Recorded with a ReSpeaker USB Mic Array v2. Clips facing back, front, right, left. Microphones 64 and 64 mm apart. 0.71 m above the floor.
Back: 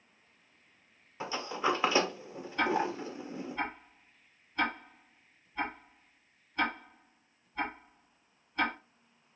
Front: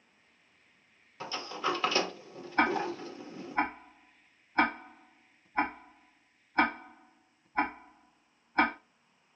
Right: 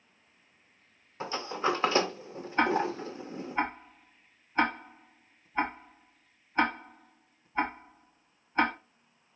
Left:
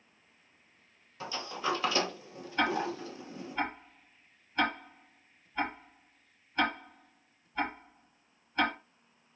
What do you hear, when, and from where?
1.2 s a sliding door: 125° right, 0.7 m
2.6 s ticking: 35° right, 1.1 m